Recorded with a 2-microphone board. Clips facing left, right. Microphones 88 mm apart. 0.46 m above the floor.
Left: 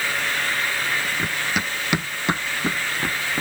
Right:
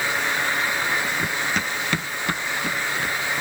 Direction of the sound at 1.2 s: Centre (ahead or behind).